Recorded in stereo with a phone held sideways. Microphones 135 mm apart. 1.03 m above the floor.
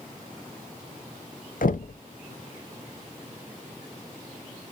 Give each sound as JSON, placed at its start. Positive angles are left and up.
{"t": 1.6, "sound": "knocking", "side_deg": 75, "distance_m": 0.5}